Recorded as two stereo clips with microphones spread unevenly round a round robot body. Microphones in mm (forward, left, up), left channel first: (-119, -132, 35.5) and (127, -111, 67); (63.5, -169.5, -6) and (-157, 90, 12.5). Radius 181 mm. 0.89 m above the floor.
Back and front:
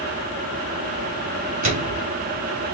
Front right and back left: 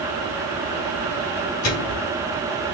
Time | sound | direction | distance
1.6 | a microwave | straight ahead | 3 m